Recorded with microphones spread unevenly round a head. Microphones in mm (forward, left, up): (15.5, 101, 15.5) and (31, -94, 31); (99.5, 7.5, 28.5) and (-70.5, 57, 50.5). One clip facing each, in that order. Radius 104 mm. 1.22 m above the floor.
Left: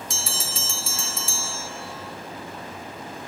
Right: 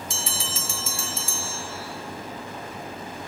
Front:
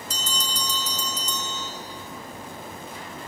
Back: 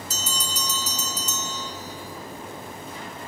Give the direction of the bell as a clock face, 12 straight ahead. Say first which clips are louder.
Right 1 dB, front 2 dB; 8 o'clock.